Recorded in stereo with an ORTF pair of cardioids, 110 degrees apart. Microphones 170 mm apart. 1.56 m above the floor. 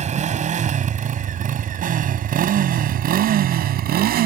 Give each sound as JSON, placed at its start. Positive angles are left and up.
{"t": 0.0, "sound": "a motorcycle", "azimuth_deg": -45}